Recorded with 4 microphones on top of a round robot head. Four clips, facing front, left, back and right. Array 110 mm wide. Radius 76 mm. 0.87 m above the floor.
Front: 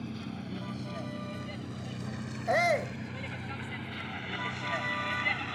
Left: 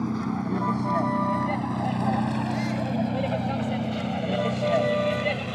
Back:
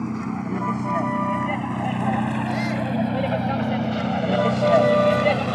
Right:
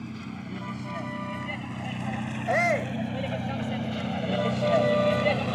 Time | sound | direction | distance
0.0 | a vehicle | 135° left | ?
2.5 | a shout | 60° right | ?